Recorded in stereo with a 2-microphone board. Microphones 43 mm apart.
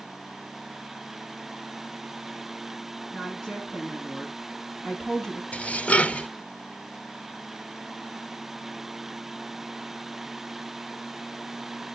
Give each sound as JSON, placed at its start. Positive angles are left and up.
{"t": 3.1, "sound": "a woman speaking", "side_deg": 5, "distance_m": 4.5}
{"t": 5.5, "sound": "dishes clattering", "side_deg": 30, "distance_m": 0.7}